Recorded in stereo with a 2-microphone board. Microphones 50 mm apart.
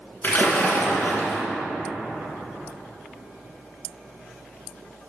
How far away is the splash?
About 1.5 m.